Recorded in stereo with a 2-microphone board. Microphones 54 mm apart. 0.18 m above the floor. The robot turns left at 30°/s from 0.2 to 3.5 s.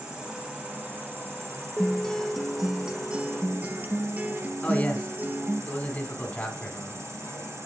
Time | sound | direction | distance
0.0 | an insect | 5° right | 4.5 m
1.8 | a guitar | 20° left | 0.6 m
4.6 | a man speaking | 25° left (ahead or behind) | 1.4 m